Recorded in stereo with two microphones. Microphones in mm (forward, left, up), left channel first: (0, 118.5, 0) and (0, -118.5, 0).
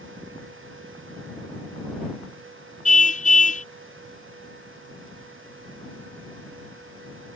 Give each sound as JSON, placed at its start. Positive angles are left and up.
{"t": 2.9, "sound": "a car horn", "side_deg": 30}